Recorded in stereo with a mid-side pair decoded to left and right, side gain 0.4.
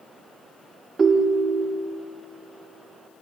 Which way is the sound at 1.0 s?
35° right.